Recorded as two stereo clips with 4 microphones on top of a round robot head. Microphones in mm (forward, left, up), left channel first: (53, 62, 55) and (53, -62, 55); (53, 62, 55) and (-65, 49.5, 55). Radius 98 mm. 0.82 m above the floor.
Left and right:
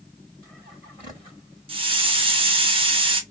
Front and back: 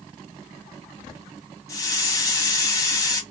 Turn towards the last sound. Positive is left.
turn(degrees=-55)